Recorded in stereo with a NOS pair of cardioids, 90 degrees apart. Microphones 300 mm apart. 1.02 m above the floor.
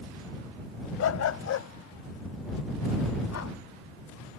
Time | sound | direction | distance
1.0 | a dog barking | 60° left | ?